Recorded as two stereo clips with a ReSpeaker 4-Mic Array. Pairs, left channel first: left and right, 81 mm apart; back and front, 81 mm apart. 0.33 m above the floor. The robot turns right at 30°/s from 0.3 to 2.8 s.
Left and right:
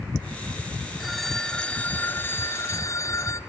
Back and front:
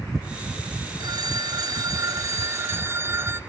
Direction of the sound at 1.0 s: 5° right.